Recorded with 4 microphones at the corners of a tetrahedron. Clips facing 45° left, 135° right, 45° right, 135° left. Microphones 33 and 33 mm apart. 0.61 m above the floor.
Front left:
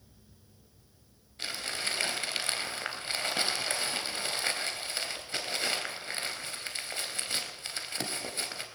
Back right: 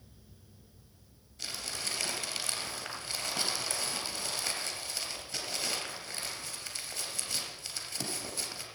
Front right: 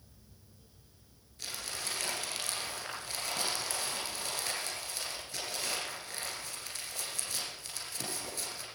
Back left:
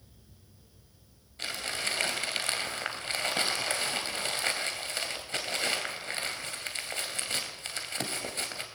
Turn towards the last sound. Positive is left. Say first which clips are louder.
# front left 4 dB, back left 7 dB
turn(degrees=90)